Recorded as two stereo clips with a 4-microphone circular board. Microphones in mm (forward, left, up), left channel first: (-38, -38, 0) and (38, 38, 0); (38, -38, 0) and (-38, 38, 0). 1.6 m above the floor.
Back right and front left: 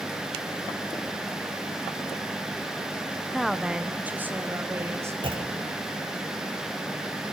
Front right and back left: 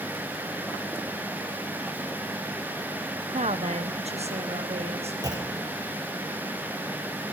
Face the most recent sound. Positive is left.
turn(degrees=80)